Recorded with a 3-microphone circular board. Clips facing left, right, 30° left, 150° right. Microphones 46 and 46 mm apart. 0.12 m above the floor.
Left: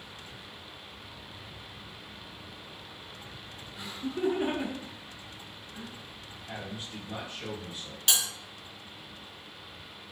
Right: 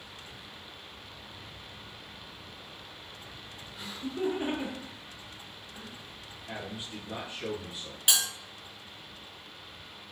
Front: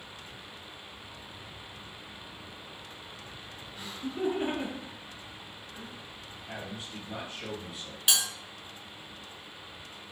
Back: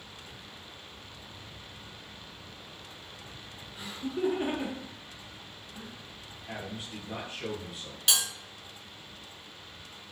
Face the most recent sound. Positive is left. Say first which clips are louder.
# right 1 dB, even
turn(degrees=-40)